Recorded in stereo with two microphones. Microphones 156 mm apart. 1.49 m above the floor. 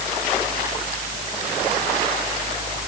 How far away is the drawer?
No drawer in this recording.